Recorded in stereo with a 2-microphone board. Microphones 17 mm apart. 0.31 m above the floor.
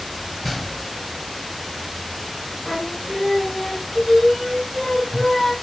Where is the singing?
10° left (ahead or behind), 4 m.